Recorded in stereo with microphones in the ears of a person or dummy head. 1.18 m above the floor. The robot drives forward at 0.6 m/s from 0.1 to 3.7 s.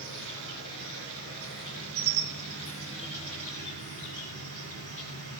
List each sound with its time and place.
0.0 s an insect: 65° right (ahead or behind), 4.5 m; by 5.4 s 70° right (ahead or behind), 4.5 m